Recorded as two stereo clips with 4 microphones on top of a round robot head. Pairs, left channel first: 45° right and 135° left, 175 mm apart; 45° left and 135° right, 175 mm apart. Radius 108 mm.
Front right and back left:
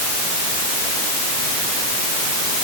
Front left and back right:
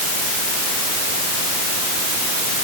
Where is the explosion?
No explosion in this recording.